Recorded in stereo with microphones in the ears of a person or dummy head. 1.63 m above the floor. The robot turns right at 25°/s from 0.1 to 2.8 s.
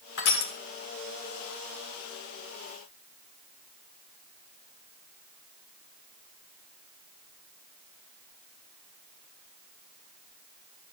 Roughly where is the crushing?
Left.